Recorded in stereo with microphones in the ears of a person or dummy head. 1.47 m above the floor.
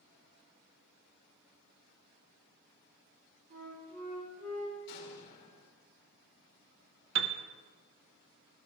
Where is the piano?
65° right (ahead or behind), 0.8 m.